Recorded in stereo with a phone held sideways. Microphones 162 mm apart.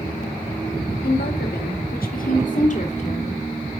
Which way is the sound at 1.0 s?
85° left.